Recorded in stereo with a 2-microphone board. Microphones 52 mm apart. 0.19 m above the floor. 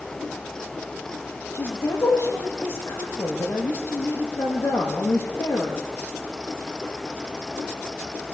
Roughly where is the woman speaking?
Left.